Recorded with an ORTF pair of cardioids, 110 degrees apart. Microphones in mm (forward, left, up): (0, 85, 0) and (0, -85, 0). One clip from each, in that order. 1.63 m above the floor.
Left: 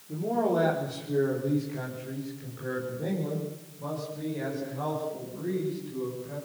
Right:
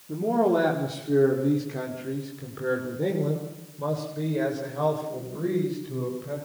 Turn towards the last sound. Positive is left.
turn(degrees=-65)